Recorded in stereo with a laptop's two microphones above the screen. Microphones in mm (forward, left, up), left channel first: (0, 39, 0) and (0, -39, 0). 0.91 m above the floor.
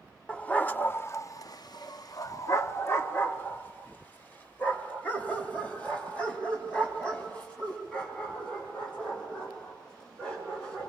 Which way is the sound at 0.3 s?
15° left (ahead or behind).